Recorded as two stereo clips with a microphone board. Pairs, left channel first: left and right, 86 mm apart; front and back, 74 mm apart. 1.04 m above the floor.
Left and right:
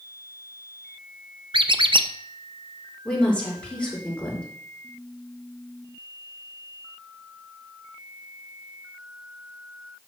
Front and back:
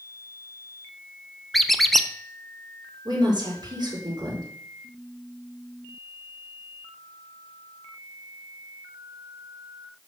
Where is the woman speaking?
165° left, 4 m.